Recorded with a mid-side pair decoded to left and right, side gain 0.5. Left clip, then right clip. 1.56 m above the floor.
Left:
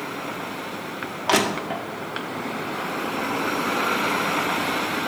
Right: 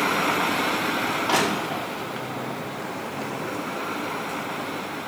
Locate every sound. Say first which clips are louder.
1.3 s crushing: left 5 dB; 55° left, 1.2 m